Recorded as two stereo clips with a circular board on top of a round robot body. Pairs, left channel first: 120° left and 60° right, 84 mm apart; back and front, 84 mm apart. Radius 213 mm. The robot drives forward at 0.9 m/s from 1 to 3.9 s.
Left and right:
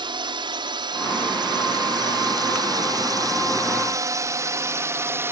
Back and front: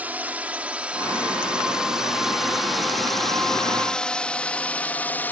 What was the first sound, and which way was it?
A drone, 70° right.